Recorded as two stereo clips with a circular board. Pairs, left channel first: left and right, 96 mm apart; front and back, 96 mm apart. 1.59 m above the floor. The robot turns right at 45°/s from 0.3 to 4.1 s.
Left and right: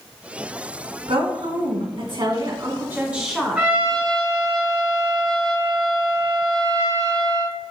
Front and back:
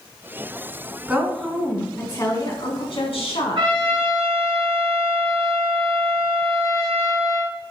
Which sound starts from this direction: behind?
A trumpet, at 3.5 s.